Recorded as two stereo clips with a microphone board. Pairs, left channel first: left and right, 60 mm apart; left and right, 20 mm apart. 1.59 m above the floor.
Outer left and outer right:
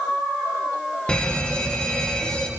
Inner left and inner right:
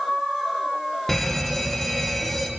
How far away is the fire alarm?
About 2.5 m.